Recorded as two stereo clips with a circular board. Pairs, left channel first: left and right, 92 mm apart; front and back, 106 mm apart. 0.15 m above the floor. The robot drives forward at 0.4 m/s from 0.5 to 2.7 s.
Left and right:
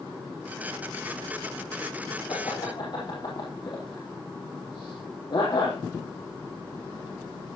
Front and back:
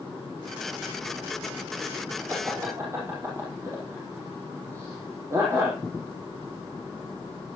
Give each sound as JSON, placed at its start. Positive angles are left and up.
{"t": 2.3, "sound": "laughter", "azimuth_deg": 115, "distance_m": 4.0}